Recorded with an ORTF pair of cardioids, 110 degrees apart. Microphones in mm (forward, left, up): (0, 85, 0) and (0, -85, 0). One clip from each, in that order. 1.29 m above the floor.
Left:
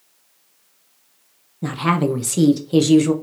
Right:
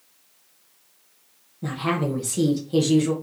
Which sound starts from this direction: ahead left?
A woman speaking, at 1.6 s.